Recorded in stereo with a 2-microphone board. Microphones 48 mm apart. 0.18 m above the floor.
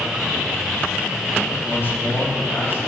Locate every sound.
1.6 s a man speaking: 55° left (ahead or behind), 4.5 m